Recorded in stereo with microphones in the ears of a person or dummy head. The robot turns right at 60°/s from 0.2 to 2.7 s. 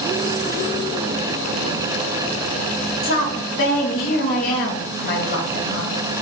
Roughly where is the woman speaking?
Left.